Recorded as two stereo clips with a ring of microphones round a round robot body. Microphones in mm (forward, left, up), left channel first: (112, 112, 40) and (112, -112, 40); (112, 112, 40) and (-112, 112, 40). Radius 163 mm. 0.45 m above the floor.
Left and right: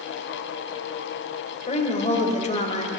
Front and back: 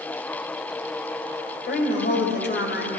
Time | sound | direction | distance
1.7 | a woman speaking | 35° left | 3 m